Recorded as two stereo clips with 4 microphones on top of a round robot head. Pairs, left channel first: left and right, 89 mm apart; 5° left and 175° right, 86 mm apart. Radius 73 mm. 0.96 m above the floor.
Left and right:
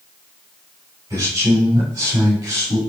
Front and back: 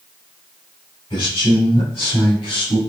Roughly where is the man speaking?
Ahead right.